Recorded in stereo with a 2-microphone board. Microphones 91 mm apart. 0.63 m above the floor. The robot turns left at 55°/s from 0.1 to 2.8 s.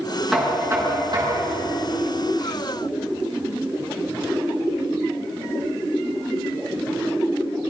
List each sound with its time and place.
0.3 s knocking: straight ahead, 6.5 m; by 1.7 s 80° right, 6.5 m